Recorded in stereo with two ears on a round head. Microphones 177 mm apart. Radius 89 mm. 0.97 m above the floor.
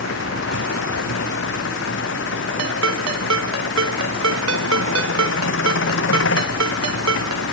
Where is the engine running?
70° left (ahead or behind).